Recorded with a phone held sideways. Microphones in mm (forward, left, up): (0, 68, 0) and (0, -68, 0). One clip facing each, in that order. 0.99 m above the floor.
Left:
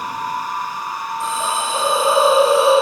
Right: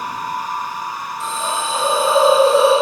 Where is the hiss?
15° left (ahead or behind), 4 m.